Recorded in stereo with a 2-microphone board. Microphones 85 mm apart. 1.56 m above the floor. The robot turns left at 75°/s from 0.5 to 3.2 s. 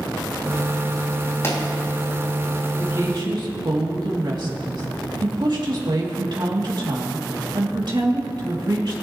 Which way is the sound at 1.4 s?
35° left (ahead or behind).